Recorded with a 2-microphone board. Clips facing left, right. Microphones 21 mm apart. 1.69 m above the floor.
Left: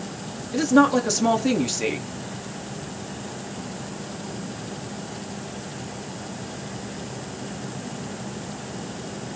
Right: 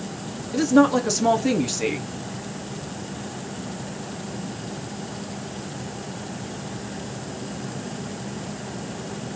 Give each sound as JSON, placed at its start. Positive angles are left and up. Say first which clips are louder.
{"t": 0.5, "sound": "a woman speaking", "louder": "even", "side_deg": 5, "distance_m": 0.6}